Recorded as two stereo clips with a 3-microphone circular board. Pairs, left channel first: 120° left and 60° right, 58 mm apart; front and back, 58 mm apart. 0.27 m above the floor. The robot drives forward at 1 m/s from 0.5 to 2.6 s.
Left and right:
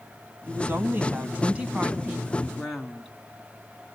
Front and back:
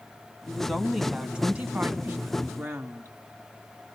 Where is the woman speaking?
80° right, 1.8 m; by 3.1 s 145° right, 2.5 m.